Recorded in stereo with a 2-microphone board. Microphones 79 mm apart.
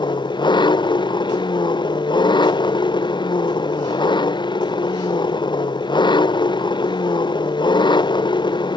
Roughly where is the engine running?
Left.